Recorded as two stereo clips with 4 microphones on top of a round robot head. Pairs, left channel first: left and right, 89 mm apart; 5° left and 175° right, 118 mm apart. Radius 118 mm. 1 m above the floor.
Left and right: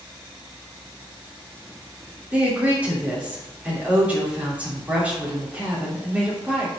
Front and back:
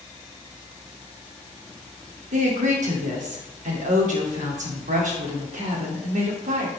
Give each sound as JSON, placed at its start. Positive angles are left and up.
{"t": 2.3, "sound": "a woman speaking", "azimuth_deg": -165, "distance_m": 3.0}